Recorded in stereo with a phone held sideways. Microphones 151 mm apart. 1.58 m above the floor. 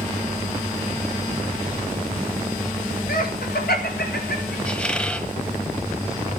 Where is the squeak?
5° left (ahead or behind), 1.6 m.